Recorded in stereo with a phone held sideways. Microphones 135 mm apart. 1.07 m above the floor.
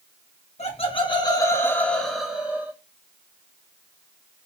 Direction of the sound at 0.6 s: 50° left (ahead or behind).